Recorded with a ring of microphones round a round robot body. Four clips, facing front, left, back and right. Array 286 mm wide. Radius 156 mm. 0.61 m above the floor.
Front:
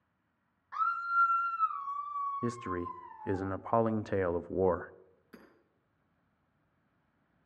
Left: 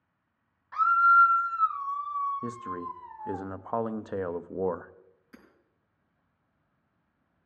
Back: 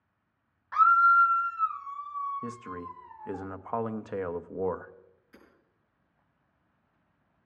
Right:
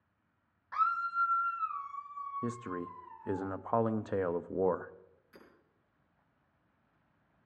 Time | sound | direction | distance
0.7 | a scream | 175° right | 0.6 m
2.4 | a man speaking | straight ahead | 0.6 m
5.3 | hammering | 35° left | 6 m